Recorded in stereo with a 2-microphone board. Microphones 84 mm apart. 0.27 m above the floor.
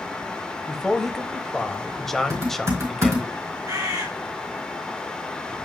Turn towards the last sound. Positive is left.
turn(degrees=-50)  # may be behind; listen again after turning